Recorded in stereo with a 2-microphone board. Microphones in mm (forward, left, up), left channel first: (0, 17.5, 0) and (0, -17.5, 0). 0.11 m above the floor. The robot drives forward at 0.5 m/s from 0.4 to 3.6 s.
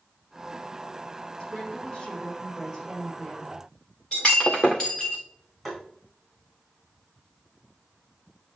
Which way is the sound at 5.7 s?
5° left (ahead or behind).